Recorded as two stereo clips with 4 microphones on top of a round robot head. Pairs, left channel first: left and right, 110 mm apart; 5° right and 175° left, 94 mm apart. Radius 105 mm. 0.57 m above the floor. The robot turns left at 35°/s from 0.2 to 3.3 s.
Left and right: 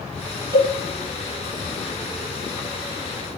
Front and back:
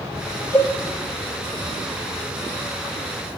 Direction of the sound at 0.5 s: 130° right.